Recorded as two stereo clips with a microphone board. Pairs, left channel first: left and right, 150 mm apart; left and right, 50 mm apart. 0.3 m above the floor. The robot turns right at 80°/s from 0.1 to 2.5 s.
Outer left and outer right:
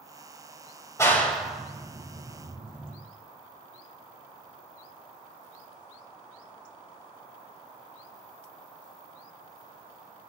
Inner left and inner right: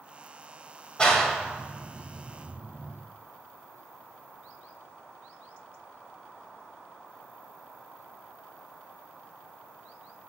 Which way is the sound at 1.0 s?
20° left (ahead or behind).